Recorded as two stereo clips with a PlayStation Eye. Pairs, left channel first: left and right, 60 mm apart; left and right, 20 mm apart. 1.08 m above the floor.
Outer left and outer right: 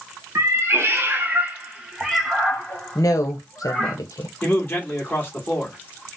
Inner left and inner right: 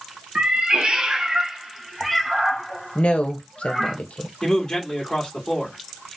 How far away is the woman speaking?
About 0.8 m.